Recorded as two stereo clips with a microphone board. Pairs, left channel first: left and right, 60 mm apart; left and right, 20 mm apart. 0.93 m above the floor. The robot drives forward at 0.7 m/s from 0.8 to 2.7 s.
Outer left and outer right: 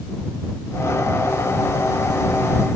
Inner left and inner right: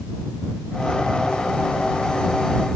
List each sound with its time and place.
Only background noise.